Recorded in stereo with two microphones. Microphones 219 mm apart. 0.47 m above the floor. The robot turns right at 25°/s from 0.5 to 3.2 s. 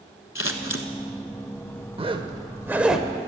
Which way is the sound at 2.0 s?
25° right (ahead or behind).